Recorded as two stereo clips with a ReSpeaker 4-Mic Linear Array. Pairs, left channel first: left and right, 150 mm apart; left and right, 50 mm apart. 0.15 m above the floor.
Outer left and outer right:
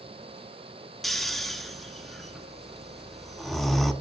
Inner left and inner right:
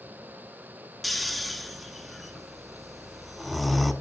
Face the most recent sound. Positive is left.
turn(degrees=0)  # may be behind; listen again after turning